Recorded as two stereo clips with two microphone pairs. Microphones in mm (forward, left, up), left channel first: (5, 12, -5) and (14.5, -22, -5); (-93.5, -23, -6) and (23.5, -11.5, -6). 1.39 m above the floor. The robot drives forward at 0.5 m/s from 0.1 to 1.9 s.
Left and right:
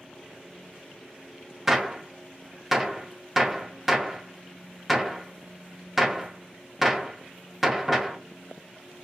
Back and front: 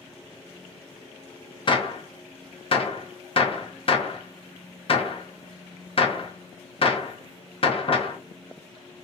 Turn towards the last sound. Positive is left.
turn(degrees=-155)